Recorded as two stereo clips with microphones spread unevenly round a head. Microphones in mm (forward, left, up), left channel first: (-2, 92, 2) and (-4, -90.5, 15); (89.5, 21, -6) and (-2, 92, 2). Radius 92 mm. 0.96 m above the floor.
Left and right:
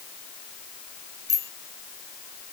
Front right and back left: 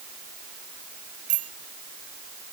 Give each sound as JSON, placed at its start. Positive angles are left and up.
{"t": 1.3, "sound": "a bicycle bell", "azimuth_deg": 165}